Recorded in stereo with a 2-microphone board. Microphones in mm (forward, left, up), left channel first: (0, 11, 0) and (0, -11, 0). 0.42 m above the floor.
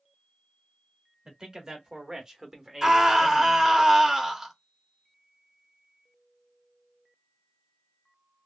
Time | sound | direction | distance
1.2 | a man speaking | 30° right (ahead or behind) | 1.3 m
2.8 | a scream | 20° right (ahead or behind) | 0.9 m